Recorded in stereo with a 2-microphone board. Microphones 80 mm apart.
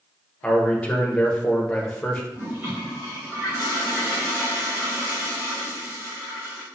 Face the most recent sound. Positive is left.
turn(degrees=-25)  # may be behind; listen again after turning